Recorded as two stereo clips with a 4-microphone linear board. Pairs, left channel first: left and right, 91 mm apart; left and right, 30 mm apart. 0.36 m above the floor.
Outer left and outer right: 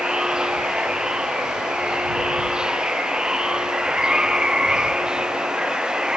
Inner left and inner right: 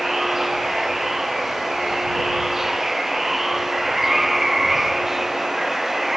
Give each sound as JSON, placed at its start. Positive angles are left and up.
{"t": 0.0, "sound": "running water", "side_deg": -10}